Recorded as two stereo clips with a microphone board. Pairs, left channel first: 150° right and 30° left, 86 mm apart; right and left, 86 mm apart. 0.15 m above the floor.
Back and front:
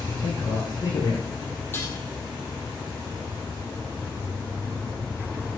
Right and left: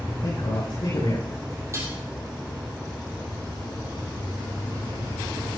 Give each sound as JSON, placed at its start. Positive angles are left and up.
{"t": 0.2, "sound": "a man speaking", "azimuth_deg": -105, "distance_m": 7.0}
{"t": 1.7, "sound": "dishes clattering", "azimuth_deg": 145, "distance_m": 3.5}